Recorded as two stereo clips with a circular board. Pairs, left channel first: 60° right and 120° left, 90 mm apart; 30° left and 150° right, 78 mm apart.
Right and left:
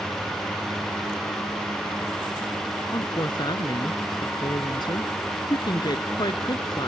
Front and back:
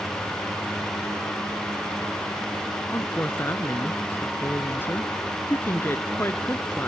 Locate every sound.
2.9 s a woman speaking: 30° right